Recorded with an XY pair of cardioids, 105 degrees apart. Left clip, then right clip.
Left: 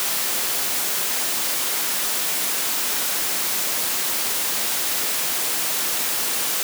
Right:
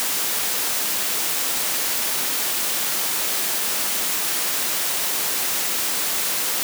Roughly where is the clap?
I don't hear a clap.